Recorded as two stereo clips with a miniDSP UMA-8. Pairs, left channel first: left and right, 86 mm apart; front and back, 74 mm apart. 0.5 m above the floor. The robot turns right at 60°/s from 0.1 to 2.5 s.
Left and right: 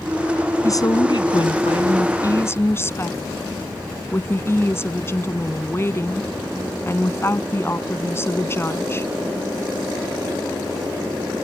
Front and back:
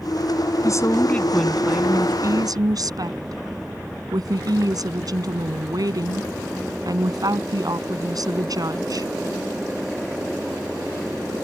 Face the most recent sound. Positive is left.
turn(degrees=150)